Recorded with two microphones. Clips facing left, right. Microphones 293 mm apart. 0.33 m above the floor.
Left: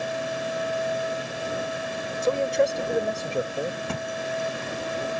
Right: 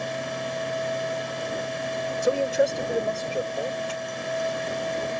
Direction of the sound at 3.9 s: 65° left (ahead or behind).